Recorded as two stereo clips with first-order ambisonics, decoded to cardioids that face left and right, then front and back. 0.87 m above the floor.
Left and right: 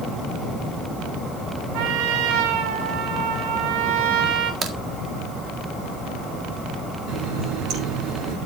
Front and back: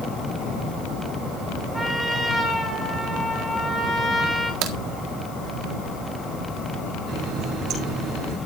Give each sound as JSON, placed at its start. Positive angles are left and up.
{"t": 1.7, "sound": "a trumpet", "azimuth_deg": -95, "distance_m": 4.0}
{"t": 4.6, "sound": "a crack", "azimuth_deg": -155, "distance_m": 1.8}
{"t": 7.1, "sound": "a running tap", "azimuth_deg": -135, "distance_m": 6.0}